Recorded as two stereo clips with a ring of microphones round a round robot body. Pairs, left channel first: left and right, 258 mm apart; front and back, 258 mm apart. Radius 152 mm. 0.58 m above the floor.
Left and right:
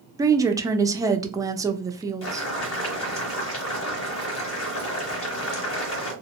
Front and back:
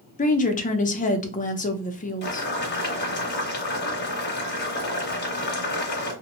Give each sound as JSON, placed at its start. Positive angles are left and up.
{"t": 0.2, "sound": "a woman speaking", "azimuth_deg": -25, "distance_m": 0.6}
{"t": 2.2, "sound": "boiling", "azimuth_deg": 50, "distance_m": 1.2}